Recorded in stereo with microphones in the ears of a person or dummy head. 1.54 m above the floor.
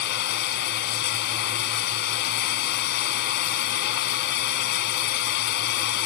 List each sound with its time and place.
0.0 s running water: 60° left (ahead or behind)